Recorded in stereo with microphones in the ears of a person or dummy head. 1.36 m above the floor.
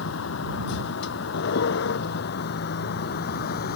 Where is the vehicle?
80° left; by 3.8 s 60° left (ahead or behind).